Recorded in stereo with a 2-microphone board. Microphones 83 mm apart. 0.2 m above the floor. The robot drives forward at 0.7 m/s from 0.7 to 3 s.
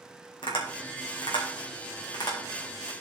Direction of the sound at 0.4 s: 75° left (ahead or behind).